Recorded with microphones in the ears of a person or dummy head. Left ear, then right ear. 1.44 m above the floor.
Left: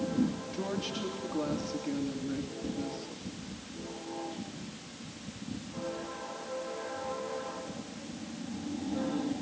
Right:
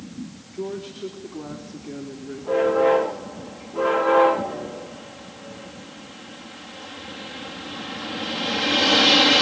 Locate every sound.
0.5 s a woman speaking: 55° left (ahead or behind), 3.5 m